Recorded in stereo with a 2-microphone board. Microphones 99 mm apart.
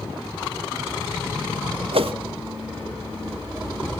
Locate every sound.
1.9 s a whoosh: 70° right (ahead or behind), 0.7 m